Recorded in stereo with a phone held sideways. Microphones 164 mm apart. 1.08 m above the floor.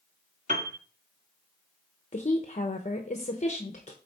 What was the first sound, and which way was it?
A piano, 50° right (ahead or behind).